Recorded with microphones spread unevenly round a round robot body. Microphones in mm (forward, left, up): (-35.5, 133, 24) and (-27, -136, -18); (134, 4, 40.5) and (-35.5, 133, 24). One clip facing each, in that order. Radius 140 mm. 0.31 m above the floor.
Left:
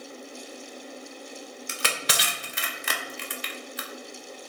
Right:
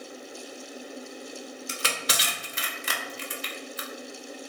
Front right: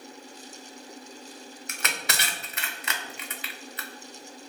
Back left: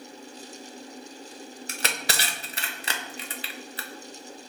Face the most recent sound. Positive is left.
turn(degrees=105)